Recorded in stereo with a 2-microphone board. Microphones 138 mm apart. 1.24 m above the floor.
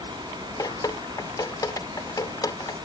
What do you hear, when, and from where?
0.6 s dripping: 25° left (ahead or behind)